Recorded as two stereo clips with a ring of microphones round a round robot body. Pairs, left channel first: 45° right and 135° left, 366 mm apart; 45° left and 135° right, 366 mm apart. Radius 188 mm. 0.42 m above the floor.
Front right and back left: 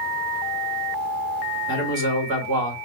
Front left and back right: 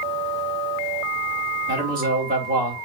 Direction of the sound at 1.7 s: 160° left.